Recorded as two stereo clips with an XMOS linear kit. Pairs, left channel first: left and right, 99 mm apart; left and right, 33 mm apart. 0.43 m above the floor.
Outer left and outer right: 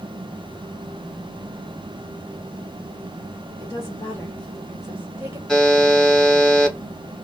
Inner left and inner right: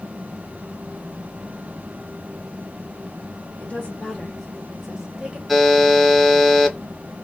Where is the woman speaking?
40° left (ahead or behind), 1.4 m; by 5.4 s 25° right (ahead or behind), 1.4 m.